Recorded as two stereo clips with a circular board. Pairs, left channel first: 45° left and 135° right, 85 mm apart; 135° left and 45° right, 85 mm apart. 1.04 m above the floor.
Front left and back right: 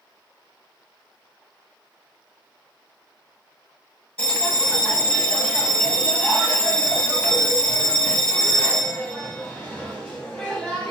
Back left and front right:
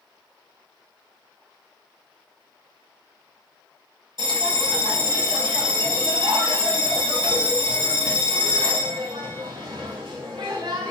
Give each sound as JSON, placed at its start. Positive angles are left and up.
{"t": 4.2, "sound": "a bell", "azimuth_deg": -30, "distance_m": 1.8}